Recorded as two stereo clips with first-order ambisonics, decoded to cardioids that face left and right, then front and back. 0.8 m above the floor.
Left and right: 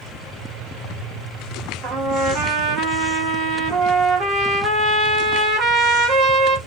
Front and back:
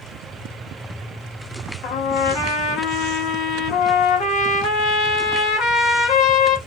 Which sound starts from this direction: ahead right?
A trumpet, at 1.8 s.